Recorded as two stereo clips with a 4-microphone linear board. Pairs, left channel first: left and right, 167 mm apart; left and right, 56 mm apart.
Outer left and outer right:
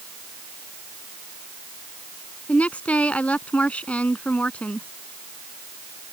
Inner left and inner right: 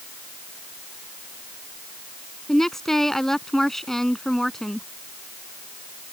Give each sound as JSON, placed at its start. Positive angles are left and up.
{"t": 2.5, "sound": "a woman speaking", "side_deg": 10}